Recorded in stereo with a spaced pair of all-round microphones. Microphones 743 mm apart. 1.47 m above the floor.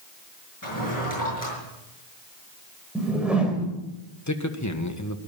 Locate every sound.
0.6 s a drawer: 25° left (ahead or behind), 6.5 m
3.0 s a whoosh: centre (ahead or behind), 3 m
4.3 s a man speaking: 25° left (ahead or behind), 1.4 m